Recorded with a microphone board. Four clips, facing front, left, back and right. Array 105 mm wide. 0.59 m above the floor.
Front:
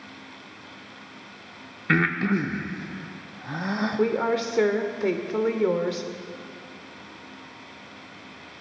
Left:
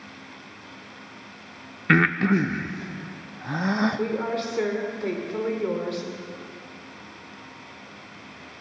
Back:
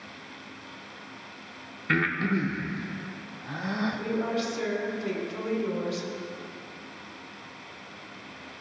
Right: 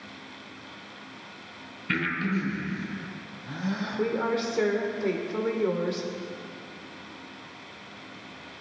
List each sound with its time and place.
1.9 s breathing: 75° left, 0.6 m
4.0 s a woman speaking: 5° right, 1.5 m